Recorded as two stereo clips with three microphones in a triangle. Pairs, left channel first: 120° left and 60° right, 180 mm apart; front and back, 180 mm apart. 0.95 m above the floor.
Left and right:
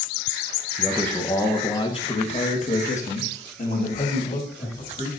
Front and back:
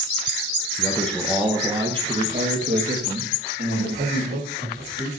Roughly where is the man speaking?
Ahead left.